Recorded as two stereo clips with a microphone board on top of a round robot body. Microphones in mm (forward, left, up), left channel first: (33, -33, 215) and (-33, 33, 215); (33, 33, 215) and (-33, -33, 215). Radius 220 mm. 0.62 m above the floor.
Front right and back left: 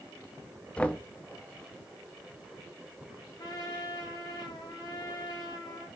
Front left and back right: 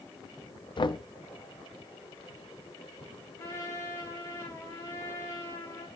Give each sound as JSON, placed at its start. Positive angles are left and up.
{"t": 0.8, "sound": "knocking", "azimuth_deg": 30, "distance_m": 0.9}
{"t": 3.4, "sound": "a trumpet", "azimuth_deg": -10, "distance_m": 4.0}